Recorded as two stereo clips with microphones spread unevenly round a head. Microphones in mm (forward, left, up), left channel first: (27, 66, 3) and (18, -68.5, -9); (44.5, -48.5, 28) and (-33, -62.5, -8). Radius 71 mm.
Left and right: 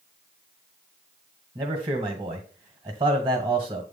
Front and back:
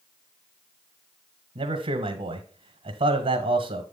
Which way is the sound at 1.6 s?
160° right.